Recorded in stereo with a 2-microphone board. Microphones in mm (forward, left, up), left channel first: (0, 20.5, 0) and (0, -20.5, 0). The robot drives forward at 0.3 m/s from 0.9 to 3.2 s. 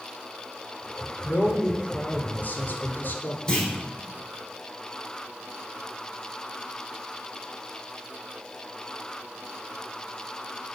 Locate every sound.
1.2 s a man speaking: 40° left (ahead or behind), 3 m; by 3.4 s 50° left (ahead or behind), 2.5 m
3.5 s a clunk: 20° left (ahead or behind), 4.5 m